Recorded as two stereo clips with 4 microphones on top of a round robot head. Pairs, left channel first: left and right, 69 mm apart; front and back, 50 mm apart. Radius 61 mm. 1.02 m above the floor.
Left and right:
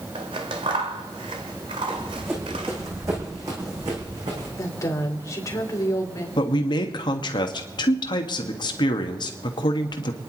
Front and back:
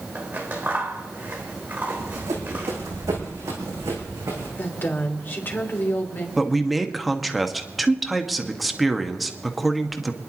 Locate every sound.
0.1 s scissors: 105° right, 1.2 m
1.9 s running footsteps: 160° right, 4.5 m; by 4.5 s 125° right, 5 m
4.6 s a woman speaking: 50° left, 3.5 m
6.4 s a man speaking: 95° left, 1.6 m